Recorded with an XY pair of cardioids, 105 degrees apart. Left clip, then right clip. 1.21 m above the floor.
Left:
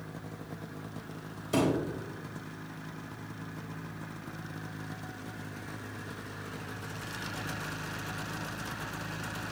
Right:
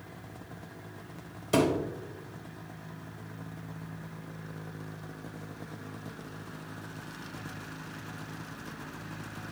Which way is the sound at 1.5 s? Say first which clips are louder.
Right 2 dB; 35° right.